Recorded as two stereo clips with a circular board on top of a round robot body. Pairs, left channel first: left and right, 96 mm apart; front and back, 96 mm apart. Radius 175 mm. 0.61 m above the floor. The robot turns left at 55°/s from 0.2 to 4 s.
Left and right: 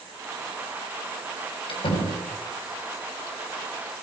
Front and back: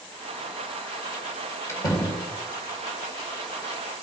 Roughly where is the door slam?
Ahead left.